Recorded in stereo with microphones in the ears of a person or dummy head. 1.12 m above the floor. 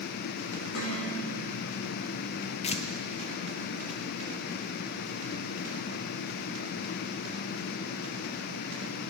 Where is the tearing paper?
40° left (ahead or behind), 0.6 m.